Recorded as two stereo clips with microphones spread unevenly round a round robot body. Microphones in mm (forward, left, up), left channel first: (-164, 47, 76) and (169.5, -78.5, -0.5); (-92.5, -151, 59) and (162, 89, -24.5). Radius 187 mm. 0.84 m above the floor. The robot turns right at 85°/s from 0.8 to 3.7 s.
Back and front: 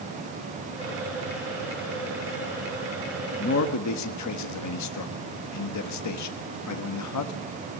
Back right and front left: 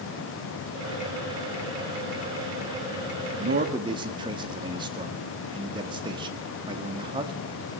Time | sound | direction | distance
3.4 | a man speaking | 85° left | 1.7 m